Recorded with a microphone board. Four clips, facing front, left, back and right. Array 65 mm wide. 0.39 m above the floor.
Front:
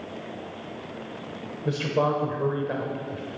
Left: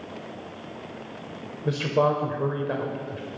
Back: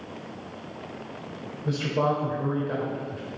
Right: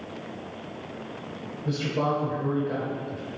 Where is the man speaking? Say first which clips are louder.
Left 4 dB, front 1 dB; 60° left, 1.1 m.